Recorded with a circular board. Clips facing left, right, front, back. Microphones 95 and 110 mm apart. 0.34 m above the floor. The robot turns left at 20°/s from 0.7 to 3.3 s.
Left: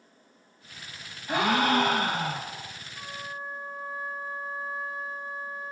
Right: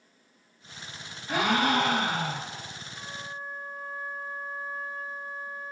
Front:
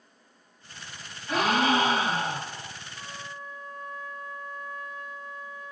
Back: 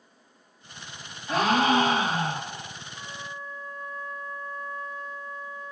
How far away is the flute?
About 1.5 m.